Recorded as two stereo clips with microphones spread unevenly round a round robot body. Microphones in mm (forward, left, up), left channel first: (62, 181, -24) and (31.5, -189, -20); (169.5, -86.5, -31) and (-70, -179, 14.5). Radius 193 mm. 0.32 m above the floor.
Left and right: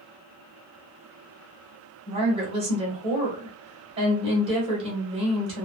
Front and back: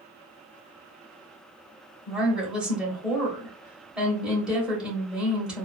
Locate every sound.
2.1 s a woman speaking: 50° right, 1.1 m